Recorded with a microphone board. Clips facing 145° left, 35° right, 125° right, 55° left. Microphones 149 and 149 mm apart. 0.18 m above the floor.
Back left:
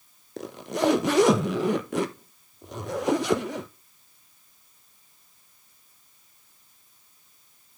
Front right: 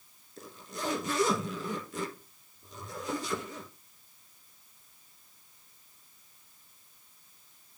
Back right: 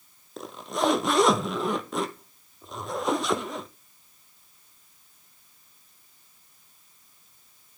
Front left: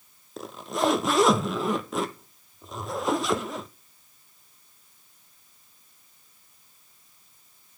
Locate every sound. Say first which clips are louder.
0.4 s a zipper: back left 13 dB, even; 145° left, 0.8 m